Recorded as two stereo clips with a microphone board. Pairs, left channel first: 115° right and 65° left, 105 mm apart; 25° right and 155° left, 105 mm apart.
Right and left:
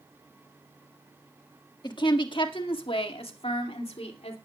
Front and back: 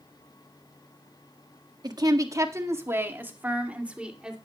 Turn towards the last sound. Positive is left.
turn(degrees=-120)